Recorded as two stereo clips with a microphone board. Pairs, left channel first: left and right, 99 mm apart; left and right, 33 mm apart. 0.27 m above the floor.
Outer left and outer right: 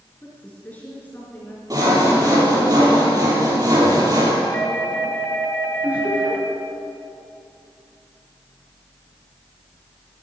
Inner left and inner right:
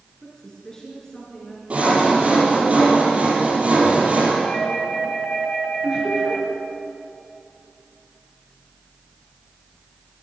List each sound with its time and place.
0.2 s a woman speaking: 15° left (ahead or behind), 3.5 m
1.7 s sawing: 40° right (ahead or behind), 5 m
4.4 s a doorbell: 15° left (ahead or behind), 2.5 m
5.8 s laughter: 20° right (ahead or behind), 5 m